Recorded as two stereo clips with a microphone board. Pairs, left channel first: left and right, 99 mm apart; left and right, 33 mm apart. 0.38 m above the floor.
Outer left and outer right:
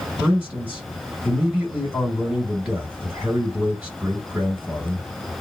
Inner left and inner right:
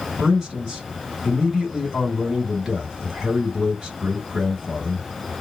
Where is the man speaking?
10° right (ahead or behind), 1.8 m.